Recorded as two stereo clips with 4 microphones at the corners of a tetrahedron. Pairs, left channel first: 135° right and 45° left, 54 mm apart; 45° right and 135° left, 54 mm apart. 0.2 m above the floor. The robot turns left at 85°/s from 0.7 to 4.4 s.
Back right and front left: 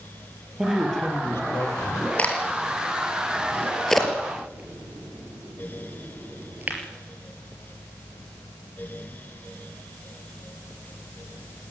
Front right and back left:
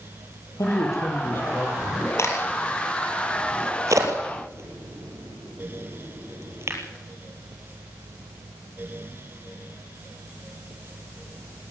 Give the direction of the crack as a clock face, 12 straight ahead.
2 o'clock.